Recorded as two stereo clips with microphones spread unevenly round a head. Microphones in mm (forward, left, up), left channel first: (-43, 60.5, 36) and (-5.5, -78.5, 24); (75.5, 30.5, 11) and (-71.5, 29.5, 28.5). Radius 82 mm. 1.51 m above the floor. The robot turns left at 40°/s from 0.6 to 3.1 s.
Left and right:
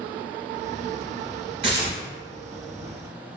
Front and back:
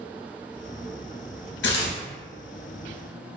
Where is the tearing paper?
15° right, 0.5 m; by 2.0 s 30° right, 0.5 m.